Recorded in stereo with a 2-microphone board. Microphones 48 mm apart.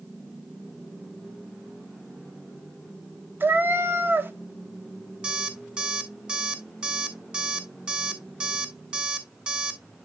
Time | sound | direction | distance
3.4 | a cat meowing | 45° right (ahead or behind) | 0.9 m
5.2 | an alarm clock | 25° right (ahead or behind) | 2 m